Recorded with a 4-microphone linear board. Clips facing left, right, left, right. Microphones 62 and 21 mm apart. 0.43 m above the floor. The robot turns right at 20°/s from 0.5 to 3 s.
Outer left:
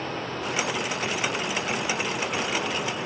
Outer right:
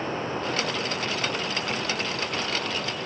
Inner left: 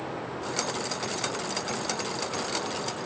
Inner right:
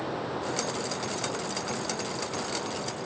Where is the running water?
30° right, 7.5 m; by 3.1 s 20° left, 7.5 m.